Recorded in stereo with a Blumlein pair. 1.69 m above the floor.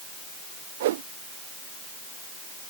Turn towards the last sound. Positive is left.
turn(degrees=-55)